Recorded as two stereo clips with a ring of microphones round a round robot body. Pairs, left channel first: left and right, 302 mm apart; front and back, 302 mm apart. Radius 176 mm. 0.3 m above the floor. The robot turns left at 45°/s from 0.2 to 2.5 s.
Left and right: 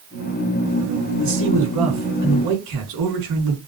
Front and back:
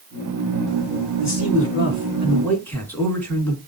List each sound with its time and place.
1.2 s a man speaking: 25° right, 3.5 m; by 3.6 s 85° right, 3.5 m